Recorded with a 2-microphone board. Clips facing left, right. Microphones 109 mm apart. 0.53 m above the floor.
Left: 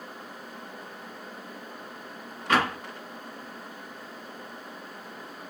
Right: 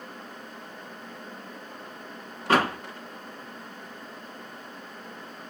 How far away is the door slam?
About 0.9 m.